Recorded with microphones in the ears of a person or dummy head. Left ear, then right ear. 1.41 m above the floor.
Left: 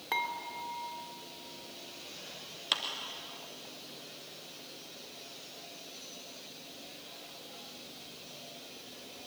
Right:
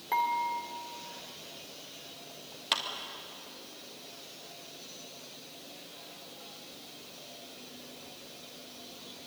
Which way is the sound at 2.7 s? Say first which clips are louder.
Right 1 dB; 10° right (ahead or behind).